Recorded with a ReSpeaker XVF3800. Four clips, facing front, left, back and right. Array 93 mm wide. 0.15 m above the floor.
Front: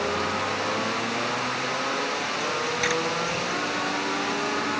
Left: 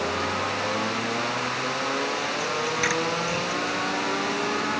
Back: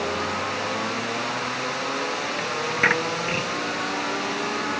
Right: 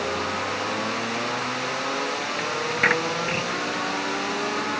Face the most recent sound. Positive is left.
turn(degrees=-140)